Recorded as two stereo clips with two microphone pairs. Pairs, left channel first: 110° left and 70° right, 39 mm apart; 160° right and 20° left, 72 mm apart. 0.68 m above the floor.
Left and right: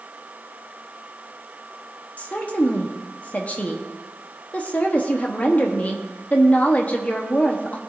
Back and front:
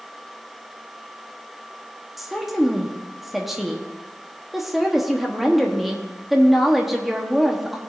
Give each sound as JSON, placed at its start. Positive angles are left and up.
{"t": 2.2, "sound": "a woman speaking", "azimuth_deg": 100, "distance_m": 1.1}